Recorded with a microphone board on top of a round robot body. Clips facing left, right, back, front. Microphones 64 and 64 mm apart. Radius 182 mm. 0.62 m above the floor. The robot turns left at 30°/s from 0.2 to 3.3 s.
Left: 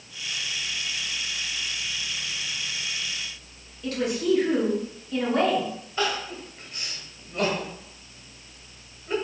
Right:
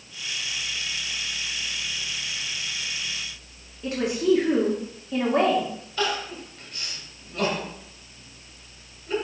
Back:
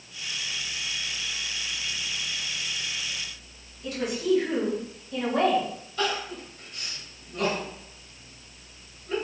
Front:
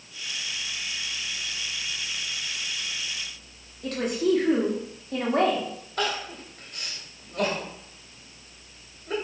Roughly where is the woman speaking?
Ahead right.